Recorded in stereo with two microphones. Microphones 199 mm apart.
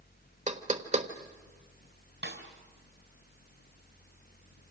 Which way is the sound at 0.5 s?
35° right (ahead or behind).